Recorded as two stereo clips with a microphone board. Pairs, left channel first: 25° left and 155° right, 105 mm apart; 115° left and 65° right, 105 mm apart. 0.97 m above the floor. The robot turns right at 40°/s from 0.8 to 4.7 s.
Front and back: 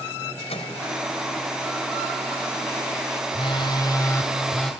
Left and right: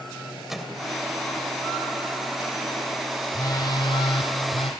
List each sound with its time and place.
0.5 s a microwave: 20° left, 3 m
3.3 s a phone buzzing: 50° left, 2.5 m; by 4.7 s 105° left, 2.5 m